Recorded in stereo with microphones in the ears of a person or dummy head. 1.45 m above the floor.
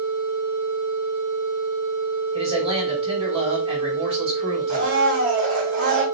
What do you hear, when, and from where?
2.3 s a man speaking: 35° right (ahead or behind), 2.5 m
4.7 s a blender: 40° right (ahead or behind), 3 m